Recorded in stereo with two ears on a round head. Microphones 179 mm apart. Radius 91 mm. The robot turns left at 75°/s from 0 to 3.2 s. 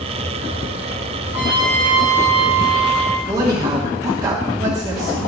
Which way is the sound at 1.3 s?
165° right.